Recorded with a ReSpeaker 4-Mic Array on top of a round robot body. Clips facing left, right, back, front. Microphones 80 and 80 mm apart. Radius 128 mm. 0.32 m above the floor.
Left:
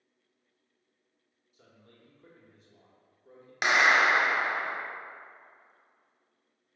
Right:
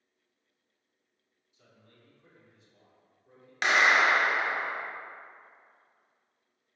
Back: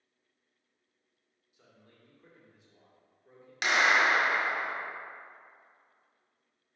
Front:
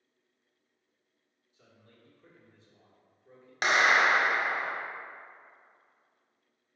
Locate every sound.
1.5 s a man speaking: 110° left, 1.4 m
3.6 s a clap: 20° left, 1.0 m